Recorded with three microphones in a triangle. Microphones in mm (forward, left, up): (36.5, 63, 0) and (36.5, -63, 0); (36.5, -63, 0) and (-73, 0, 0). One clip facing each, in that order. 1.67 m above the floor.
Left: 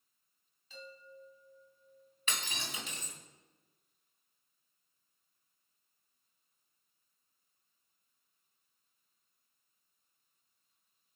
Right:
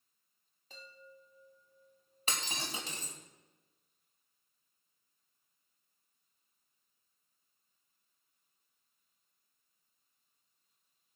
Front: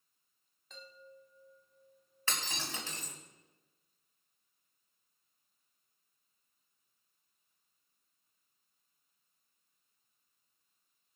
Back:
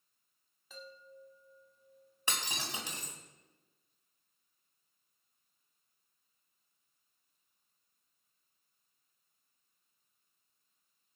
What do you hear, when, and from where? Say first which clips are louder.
0.7 s a chime: left 4 dB, back 2 dB; 125° right, 2.5 m
2.3 s breaking glass: right 2 dB, back 1 dB; 140° right, 3.5 m